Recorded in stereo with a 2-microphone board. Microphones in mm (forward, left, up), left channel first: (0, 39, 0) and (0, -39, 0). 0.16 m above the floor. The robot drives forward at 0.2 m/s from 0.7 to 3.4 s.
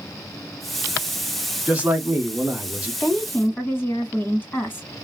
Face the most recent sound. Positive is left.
turn(degrees=25)  # may be behind; listen again after turning